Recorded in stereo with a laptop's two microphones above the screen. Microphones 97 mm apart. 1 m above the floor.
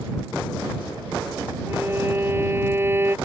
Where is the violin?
25° right (ahead or behind).